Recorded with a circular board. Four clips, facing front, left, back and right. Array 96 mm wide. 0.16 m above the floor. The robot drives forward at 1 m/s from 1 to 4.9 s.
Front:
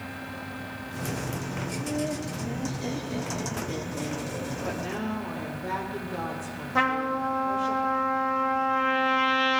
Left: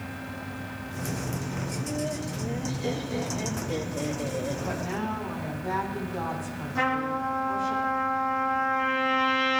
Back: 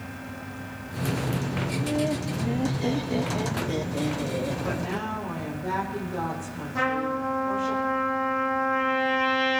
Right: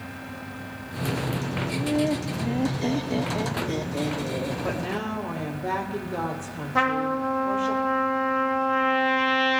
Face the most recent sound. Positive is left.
turn(degrees=-55)